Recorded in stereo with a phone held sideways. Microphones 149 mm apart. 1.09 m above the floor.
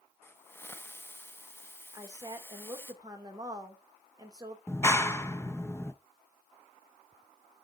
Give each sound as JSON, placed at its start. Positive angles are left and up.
{"t": 0.2, "sound": "a hiss", "side_deg": 15, "distance_m": 0.9}
{"t": 1.9, "sound": "a woman speaking", "side_deg": -25, "distance_m": 2.5}
{"t": 4.7, "sound": "a clap", "side_deg": 15, "distance_m": 0.9}